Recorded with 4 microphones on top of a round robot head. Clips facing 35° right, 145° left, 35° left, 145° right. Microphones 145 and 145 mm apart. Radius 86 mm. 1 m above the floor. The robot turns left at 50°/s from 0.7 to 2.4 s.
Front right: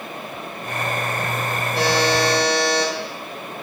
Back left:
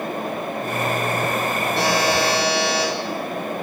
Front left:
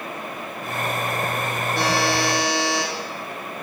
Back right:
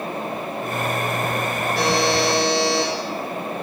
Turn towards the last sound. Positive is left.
turn(degrees=-15)